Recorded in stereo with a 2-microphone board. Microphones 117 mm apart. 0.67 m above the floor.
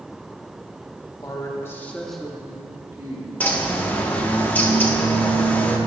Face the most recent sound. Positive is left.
turn(degrees=15)  # may be behind; listen again after turning